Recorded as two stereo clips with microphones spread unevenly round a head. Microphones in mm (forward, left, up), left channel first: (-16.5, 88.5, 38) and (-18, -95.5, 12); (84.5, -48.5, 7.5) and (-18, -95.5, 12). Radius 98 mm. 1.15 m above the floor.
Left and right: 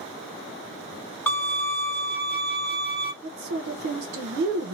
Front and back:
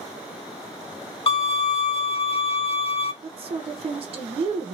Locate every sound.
1.3 s a violin: 20° left, 1.0 m
3.2 s a woman speaking: 115° right, 0.8 m